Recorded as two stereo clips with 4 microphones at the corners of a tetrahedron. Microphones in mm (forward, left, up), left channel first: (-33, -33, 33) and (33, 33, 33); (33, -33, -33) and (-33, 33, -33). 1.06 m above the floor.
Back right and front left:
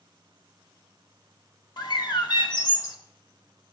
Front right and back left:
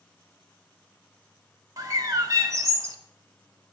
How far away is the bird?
About 1.2 m.